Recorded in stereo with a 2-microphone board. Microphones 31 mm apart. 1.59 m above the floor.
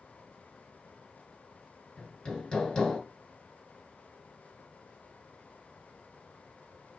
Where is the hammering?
25° left (ahead or behind), 2.5 m.